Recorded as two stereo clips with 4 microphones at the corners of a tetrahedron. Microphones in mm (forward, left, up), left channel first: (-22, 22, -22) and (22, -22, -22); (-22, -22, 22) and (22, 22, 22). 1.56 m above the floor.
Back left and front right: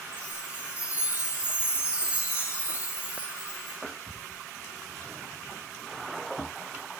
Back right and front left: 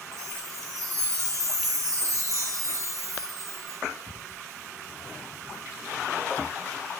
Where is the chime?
25° left, 3 m.